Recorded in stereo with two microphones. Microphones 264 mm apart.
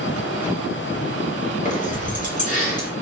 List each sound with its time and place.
1.6 s keys jangling: 30° left (ahead or behind), 0.7 m